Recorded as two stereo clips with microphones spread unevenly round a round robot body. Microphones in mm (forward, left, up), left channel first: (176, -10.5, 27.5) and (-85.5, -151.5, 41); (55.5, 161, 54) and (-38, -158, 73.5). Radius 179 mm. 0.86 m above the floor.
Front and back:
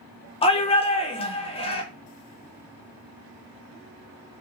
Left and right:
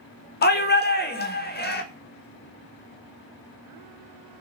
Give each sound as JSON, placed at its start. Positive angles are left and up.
{"t": 0.4, "sound": "a shout", "azimuth_deg": 75, "distance_m": 0.6}